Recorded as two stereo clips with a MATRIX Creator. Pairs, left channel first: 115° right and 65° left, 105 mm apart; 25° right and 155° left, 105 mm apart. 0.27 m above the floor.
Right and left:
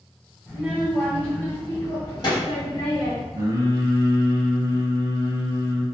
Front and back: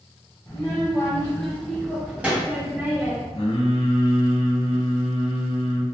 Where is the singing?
10° left, 1.3 m.